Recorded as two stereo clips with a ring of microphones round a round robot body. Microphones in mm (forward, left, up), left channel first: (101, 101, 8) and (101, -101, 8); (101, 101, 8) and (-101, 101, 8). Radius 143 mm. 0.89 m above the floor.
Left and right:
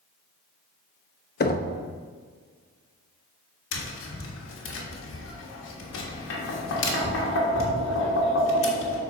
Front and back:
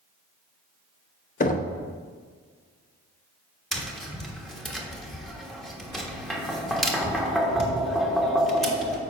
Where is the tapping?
90° left, 1.4 m.